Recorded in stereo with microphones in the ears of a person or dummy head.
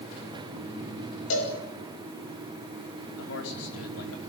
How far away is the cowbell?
About 5.5 m.